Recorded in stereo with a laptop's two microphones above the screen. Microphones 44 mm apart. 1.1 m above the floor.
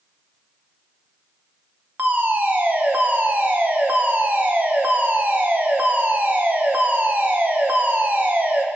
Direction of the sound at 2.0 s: 40° right (ahead or behind).